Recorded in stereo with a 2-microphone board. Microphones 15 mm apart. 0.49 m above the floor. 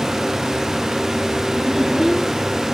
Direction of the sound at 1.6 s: 10° right (ahead or behind).